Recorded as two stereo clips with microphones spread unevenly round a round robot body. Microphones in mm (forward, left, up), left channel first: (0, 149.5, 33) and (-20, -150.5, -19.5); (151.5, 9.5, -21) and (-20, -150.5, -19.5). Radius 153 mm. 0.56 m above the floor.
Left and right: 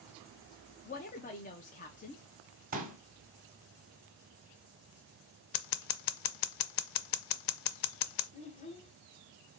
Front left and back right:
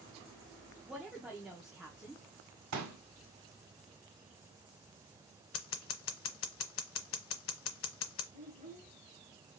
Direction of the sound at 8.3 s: 160° left.